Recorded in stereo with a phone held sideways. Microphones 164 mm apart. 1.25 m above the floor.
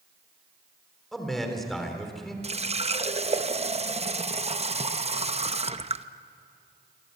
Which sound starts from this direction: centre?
A man speaking, at 1.1 s.